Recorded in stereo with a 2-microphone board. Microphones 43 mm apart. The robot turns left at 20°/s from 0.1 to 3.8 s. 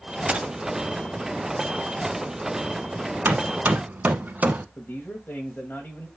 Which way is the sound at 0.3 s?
30° right (ahead or behind).